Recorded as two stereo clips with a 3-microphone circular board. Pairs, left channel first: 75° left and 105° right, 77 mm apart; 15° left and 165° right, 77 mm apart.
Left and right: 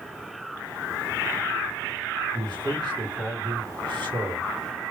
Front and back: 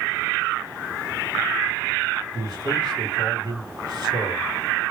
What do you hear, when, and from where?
2.3 s a man speaking: 130° right, 2 m